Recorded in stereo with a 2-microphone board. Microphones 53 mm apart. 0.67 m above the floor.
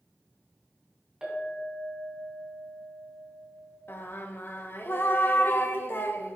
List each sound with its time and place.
1.2 s a clink: 15° right (ahead or behind), 3 m
3.9 s singing: 45° left (ahead or behind), 0.6 m